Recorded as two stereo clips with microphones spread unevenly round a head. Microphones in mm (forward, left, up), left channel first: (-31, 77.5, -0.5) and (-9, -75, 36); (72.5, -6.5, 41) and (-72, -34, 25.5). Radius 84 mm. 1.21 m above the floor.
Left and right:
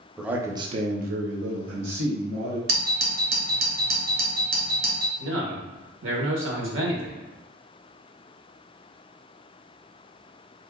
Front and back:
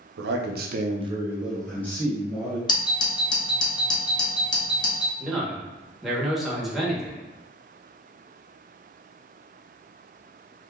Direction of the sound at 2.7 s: 50° right.